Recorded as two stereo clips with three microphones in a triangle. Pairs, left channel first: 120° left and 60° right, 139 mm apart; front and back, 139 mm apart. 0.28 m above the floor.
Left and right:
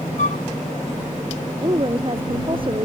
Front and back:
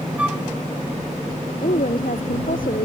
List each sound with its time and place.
0.2 s a flute: 100° left
1.6 s a woman speaking: 10° right